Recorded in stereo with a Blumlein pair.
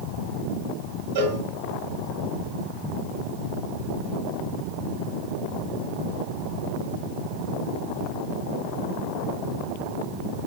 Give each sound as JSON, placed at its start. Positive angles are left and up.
{"t": 1.1, "sound": "a cowbell", "azimuth_deg": -65, "distance_m": 5.0}